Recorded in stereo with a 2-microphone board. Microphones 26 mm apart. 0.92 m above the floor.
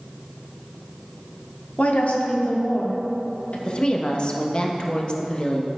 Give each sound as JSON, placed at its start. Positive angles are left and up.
{"t": 1.8, "sound": "a woman speaking", "side_deg": 60, "distance_m": 1.8}
{"t": 3.6, "sound": "a woman speaking", "side_deg": 35, "distance_m": 1.1}